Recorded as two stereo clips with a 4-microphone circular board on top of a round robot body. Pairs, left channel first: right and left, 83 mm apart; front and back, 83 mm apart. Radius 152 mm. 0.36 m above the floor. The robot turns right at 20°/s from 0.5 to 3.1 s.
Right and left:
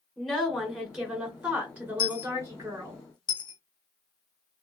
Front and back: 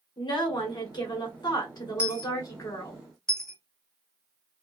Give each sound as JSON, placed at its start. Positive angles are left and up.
{"t": 0.2, "sound": "a woman speaking", "azimuth_deg": -5, "distance_m": 1.8}
{"t": 2.0, "sound": "a dropped coin", "azimuth_deg": -105, "distance_m": 0.7}